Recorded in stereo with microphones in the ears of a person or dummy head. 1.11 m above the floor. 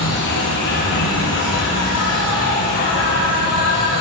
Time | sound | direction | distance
0.0 | an insect | 65° left (ahead or behind) | 1.4 m